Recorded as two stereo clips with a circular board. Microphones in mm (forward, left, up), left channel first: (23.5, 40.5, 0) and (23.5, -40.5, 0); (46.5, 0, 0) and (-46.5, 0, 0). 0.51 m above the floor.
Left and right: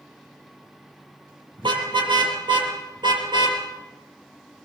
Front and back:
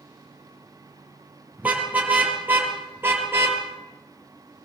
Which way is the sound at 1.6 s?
105° right.